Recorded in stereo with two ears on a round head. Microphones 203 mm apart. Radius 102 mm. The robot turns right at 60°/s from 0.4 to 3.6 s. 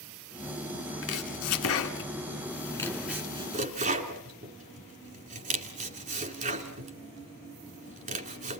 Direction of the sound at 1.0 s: 60° left (ahead or behind).